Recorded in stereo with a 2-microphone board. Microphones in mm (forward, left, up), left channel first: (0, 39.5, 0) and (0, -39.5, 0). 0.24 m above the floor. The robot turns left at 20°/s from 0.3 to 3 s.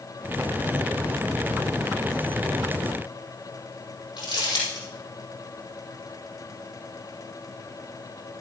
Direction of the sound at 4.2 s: 70° left (ahead or behind).